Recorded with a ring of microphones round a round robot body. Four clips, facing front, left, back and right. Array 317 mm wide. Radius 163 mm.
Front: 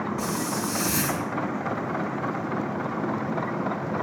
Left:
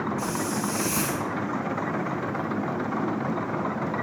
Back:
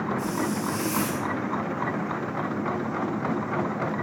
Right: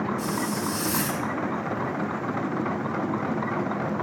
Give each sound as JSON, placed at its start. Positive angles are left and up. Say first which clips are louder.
{"t": 0.2, "sound": "a hiss", "louder": "even, back 1 dB", "azimuth_deg": -5, "distance_m": 4.0}